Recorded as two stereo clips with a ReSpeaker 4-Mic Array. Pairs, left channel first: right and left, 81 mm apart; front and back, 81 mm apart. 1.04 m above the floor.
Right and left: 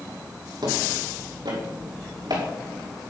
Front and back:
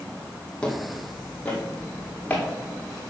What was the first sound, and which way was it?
Footsteps, 75° left.